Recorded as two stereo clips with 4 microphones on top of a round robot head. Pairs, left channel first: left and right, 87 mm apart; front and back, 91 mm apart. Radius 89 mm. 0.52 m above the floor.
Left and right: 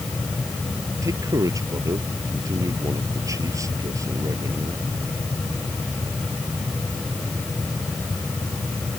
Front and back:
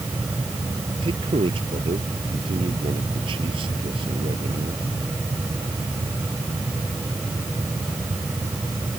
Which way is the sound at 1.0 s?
145° right.